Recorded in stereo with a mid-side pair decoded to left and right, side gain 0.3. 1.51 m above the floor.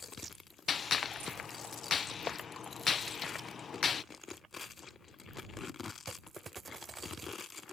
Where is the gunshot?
60° left.